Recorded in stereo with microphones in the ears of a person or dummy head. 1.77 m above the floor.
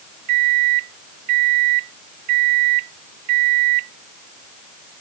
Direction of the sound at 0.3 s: 40° right (ahead or behind).